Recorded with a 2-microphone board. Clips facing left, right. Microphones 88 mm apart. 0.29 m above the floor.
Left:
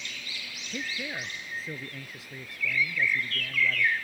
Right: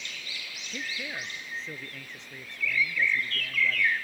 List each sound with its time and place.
0.7 s a man speaking: 10° left (ahead or behind); by 3.9 s 5° left (ahead or behind)